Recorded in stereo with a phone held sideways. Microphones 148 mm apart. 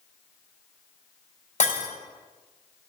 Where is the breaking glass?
55° left (ahead or behind), 3.5 m.